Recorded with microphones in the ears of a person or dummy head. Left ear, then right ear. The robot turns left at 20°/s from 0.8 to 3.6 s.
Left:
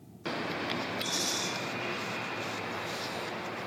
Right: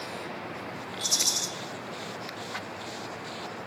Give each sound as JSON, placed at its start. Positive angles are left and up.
{"t": 1.0, "sound": "a rattle", "side_deg": -75, "distance_m": 0.5}